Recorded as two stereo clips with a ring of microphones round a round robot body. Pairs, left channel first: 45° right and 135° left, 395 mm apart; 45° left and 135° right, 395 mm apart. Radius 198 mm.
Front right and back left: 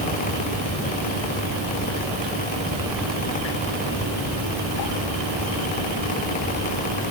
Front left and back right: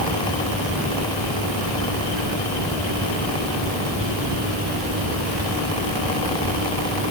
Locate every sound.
Only background noise.